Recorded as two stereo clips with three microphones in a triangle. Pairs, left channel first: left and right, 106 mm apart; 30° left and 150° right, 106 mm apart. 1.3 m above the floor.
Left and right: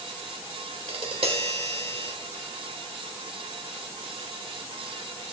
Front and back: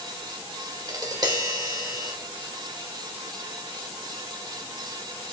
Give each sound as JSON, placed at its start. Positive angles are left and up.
{"t": 0.9, "sound": "tapping", "azimuth_deg": -105, "distance_m": 1.2}